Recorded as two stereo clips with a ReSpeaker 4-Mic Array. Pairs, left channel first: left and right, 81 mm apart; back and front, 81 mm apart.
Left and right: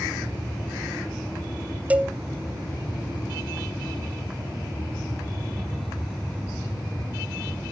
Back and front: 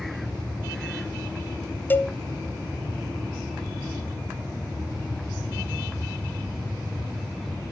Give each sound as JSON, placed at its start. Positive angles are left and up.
{"t": 1.9, "sound": "a cowbell", "azimuth_deg": -140, "distance_m": 0.5}